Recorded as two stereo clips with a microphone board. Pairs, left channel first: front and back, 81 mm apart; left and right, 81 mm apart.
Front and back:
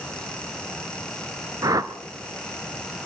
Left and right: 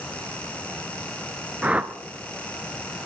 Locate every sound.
1.6 s a whoosh: 160° right, 0.8 m